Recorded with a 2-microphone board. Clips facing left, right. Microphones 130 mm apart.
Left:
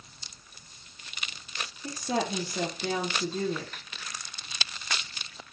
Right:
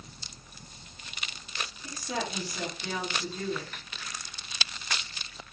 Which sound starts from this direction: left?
A woman speaking, at 1.8 s.